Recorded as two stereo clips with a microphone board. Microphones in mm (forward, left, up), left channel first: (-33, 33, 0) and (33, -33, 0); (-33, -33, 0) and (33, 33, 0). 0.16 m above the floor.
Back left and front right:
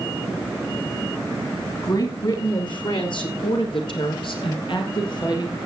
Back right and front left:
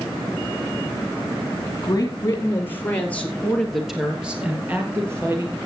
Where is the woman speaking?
175° left, 3.5 m; by 5.6 s 100° left, 3.5 m.